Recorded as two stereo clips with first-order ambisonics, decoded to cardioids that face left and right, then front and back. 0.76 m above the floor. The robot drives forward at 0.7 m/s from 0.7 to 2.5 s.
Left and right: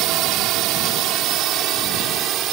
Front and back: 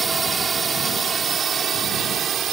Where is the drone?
110° right; by 2.5 s 125° right.